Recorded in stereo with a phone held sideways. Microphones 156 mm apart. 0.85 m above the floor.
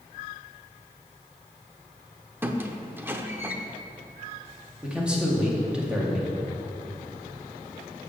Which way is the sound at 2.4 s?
15° right (ahead or behind).